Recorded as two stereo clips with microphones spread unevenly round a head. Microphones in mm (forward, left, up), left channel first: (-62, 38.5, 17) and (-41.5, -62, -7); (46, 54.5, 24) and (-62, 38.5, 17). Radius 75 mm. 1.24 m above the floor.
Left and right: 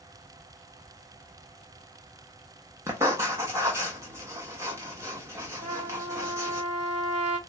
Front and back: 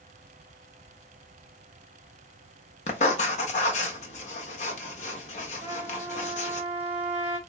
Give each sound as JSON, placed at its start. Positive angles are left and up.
{"t": 2.9, "sound": "writing", "azimuth_deg": 0, "distance_m": 0.8}
{"t": 5.6, "sound": "a trumpet", "azimuth_deg": -105, "distance_m": 3.0}